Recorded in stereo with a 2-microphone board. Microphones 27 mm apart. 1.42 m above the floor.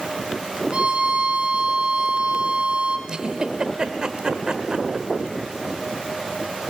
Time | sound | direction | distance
0.7 | a violin | 40° right (ahead or behind) | 1.7 m
3.1 | a giggle | 30° right (ahead or behind) | 1.3 m